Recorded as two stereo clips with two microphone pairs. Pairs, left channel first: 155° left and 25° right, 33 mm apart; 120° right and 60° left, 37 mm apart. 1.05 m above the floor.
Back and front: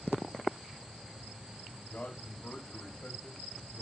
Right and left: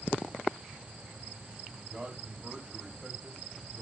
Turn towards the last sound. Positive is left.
turn(degrees=130)